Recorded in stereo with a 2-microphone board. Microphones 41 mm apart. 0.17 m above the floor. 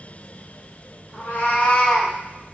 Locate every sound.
1.1 s a cat meowing: 65° left (ahead or behind), 1.4 m; by 2.1 s 10° right (ahead or behind), 0.6 m